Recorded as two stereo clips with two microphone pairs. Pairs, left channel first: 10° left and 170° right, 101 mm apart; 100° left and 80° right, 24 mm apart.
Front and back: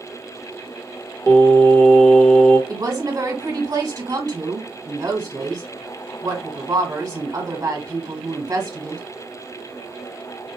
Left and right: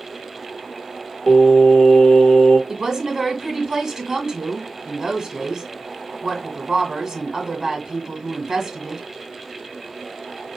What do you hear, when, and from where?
1.3 s singing: 80° left, 1.7 m
2.7 s a woman speaking: 135° right, 1.6 m